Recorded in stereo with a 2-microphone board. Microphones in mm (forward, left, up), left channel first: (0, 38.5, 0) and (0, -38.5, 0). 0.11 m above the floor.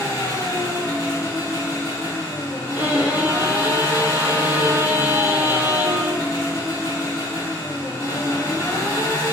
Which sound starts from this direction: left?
An engine running, at 0.0 s.